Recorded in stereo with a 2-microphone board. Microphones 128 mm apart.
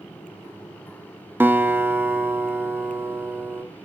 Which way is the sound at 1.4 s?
15° right (ahead or behind).